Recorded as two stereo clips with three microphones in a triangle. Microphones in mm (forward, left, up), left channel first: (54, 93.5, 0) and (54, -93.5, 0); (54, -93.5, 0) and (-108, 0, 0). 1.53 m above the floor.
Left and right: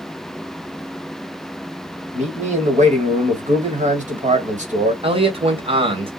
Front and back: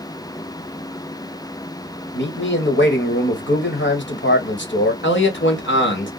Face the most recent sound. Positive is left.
turn(degrees=-30)